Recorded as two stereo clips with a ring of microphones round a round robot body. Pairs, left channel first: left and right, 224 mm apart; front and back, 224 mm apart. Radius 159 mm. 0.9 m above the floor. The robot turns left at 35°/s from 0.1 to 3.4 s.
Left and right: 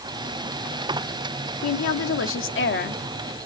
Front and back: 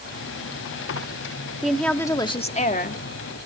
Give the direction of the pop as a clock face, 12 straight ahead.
No pop in this recording.